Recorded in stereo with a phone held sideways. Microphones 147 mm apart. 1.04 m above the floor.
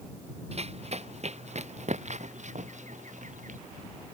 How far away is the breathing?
No breathing in this recording.